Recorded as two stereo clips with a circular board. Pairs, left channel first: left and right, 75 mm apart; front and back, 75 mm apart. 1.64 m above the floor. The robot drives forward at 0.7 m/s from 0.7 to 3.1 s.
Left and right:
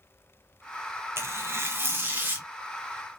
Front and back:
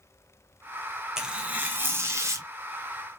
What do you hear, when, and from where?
1.2 s tearing paper: 100° right, 1.1 m; by 2.5 s 145° right, 1.5 m